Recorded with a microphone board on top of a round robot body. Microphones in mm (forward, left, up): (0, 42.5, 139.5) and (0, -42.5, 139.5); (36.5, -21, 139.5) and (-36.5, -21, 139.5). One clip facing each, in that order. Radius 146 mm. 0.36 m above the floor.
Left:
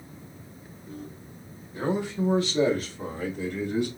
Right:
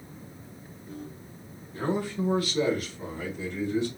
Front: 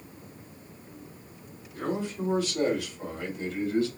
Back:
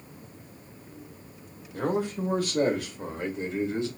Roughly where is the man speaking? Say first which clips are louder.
Left 1 dB, back 3 dB; behind.